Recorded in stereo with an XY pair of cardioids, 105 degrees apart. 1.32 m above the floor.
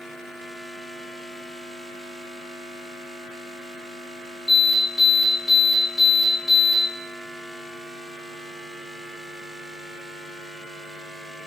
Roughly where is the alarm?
Ahead left.